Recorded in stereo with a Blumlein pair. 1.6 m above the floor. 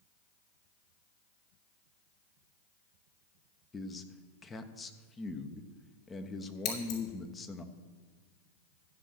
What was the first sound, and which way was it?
A man speaking, 15° left.